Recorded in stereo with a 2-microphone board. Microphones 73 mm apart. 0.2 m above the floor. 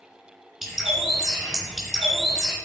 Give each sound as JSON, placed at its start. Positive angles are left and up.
{"t": 0.6, "sound": "a bird", "side_deg": -5, "distance_m": 3.5}